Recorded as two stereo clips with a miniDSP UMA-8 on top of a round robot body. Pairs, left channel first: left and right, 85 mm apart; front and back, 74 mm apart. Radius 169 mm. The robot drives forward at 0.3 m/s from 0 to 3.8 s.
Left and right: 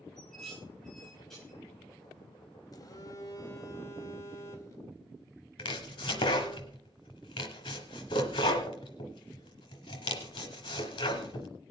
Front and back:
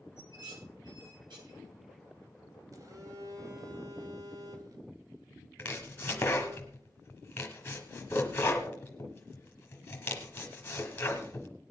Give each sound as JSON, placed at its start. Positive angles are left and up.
{"t": 0.2, "sound": "dishes clattering", "azimuth_deg": 175, "distance_m": 7.0}
{"t": 2.7, "sound": "a phone buzzing", "azimuth_deg": 140, "distance_m": 1.4}
{"t": 5.6, "sound": "chopping", "azimuth_deg": 70, "distance_m": 0.7}